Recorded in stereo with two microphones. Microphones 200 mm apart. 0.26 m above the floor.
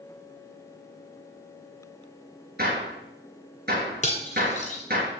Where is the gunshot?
50° right (ahead or behind), 3 m.